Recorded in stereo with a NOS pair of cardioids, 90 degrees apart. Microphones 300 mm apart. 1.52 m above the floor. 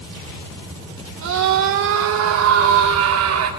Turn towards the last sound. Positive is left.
turn(degrees=-75)